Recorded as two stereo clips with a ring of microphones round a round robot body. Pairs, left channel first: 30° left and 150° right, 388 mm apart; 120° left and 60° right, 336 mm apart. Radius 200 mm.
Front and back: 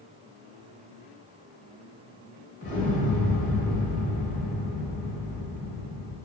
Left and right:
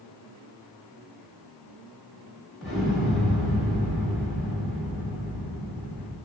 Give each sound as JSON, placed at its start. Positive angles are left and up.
{"t": 2.6, "sound": "an explosion", "azimuth_deg": 30, "distance_m": 1.2}